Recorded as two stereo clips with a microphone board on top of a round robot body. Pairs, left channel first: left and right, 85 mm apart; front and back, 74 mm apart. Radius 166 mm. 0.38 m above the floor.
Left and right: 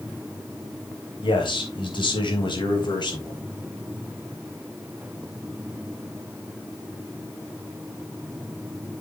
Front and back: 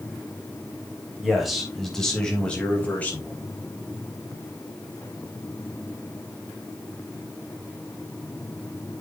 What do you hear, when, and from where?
1.2 s a man speaking: 95° left, 4 m; by 3.4 s 65° left, 4 m